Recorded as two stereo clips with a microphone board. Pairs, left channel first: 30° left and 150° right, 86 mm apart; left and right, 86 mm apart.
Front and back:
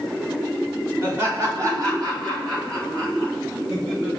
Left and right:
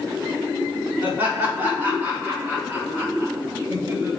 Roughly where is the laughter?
Behind right.